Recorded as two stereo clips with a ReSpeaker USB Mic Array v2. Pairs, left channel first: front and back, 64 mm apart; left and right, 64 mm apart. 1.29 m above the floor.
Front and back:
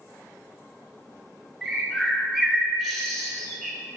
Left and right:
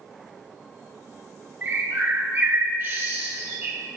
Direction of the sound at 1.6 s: 90° right.